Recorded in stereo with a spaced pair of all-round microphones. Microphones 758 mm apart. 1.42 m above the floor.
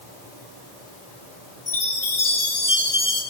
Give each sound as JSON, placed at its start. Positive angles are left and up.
{"t": 1.7, "sound": "a chime", "side_deg": 75, "distance_m": 4.5}